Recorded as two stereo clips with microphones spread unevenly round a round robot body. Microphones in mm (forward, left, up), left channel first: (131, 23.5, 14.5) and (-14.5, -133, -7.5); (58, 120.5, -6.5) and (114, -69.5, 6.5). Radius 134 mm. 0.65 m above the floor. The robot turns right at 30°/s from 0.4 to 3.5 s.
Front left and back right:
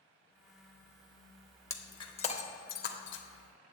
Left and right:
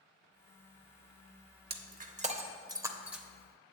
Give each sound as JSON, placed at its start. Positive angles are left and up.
{"t": 1.7, "sound": "breaking glass", "azimuth_deg": -30, "distance_m": 0.9}